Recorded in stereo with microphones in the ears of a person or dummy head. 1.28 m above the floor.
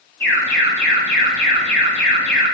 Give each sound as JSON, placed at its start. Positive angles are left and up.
{"t": 0.2, "sound": "an alarm", "side_deg": 10, "distance_m": 3.5}